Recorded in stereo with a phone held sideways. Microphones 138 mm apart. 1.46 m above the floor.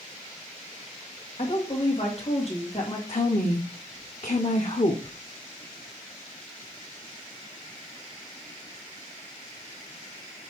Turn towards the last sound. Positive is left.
turn(degrees=55)  # may be behind; listen again after turning